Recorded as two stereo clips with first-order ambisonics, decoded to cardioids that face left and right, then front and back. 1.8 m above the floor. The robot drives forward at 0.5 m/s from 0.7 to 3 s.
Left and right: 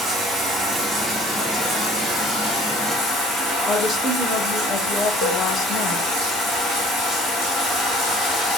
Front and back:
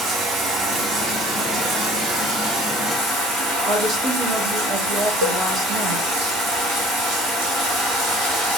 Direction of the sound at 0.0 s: 155° right.